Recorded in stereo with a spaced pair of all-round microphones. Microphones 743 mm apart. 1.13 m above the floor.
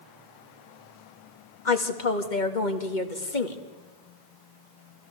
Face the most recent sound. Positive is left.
turn(degrees=80)